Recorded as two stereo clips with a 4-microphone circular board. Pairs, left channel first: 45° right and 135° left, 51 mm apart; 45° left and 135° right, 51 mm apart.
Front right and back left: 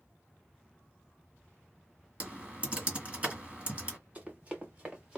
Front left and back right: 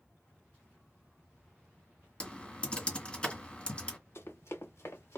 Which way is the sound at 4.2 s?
70° left.